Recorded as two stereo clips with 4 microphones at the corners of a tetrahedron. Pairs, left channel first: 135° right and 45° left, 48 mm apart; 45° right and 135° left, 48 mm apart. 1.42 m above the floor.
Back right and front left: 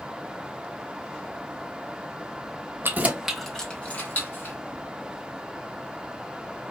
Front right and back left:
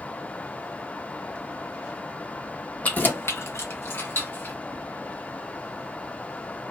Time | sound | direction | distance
2.8 | keys jangling | 10° left | 0.9 m